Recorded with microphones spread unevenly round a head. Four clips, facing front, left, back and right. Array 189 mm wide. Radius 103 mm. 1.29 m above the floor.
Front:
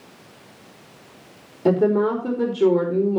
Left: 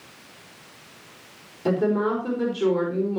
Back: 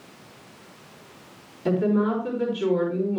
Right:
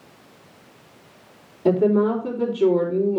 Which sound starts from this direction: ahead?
A woman speaking, at 1.6 s.